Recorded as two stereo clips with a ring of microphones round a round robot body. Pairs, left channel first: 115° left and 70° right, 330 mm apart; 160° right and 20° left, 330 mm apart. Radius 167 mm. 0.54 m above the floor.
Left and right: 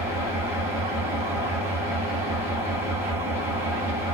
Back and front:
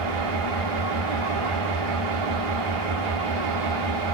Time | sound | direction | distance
0.0 | an engine running | 15° left | 1.9 m